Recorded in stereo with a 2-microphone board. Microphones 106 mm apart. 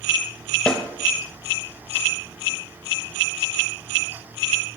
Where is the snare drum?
10° left (ahead or behind), 1.0 m.